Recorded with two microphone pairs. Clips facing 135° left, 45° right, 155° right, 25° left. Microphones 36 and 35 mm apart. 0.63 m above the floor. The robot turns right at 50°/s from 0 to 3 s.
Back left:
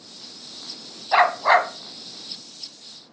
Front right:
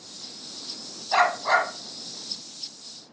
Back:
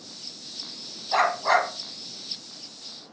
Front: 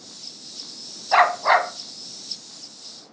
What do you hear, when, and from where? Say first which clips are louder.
1.1 s a dog barking: back left 4 dB, front 5 dB; 65° left, 0.9 m; by 1.7 s 95° left, 0.9 m